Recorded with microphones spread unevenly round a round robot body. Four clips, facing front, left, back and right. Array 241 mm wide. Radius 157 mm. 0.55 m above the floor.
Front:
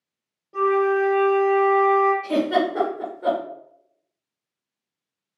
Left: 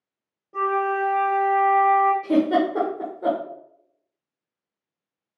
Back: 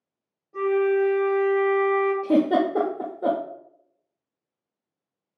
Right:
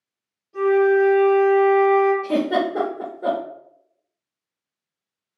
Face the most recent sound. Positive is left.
turn(degrees=165)